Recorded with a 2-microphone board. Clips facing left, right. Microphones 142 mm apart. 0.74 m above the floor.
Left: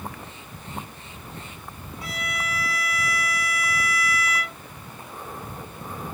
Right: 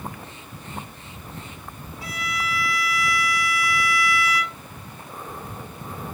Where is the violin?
20° left (ahead or behind), 1.3 m.